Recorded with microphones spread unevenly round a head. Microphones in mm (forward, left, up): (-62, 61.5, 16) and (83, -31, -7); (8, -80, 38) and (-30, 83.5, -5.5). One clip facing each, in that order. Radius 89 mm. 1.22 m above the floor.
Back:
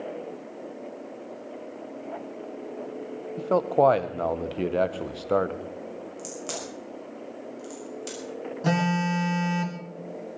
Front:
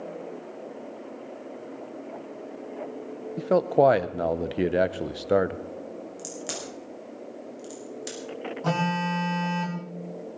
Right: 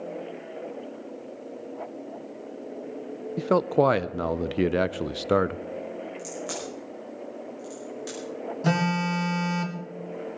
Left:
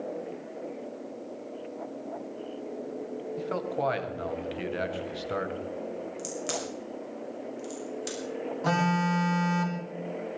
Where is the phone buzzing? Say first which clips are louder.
Back 2 dB, right 2 dB; 140° right, 1.7 m.